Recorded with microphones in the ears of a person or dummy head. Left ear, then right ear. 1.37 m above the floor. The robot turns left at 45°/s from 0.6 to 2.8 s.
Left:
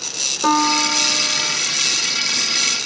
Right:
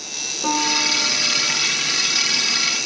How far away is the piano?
About 1.0 m.